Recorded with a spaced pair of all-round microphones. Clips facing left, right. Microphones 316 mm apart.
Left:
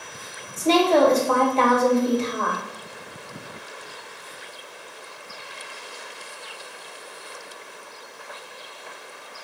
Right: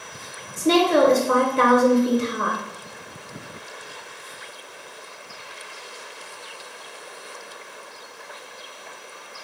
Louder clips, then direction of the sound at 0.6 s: Even; 20° right (ahead or behind).